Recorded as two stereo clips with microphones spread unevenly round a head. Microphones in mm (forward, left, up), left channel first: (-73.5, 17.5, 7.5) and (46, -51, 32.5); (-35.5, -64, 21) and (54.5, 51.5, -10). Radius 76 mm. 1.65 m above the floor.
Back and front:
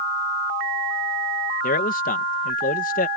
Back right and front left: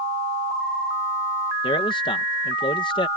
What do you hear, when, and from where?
1.6 s a man speaking: 170° left